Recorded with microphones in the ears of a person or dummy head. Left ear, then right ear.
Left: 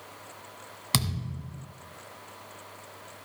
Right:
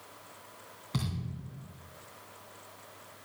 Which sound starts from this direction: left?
A thud, at 0.9 s.